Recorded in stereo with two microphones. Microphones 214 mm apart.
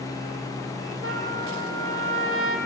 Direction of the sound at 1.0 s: 80° right.